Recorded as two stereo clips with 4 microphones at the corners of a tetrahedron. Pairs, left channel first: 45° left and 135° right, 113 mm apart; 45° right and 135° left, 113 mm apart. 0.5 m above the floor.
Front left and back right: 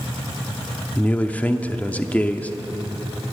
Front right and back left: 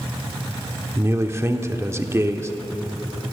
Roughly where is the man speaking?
Left.